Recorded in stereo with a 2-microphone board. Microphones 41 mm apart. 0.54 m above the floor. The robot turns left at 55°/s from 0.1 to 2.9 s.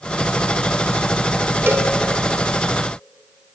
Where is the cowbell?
55° right (ahead or behind), 1.2 m; by 1.9 s 45° right (ahead or behind), 1.2 m.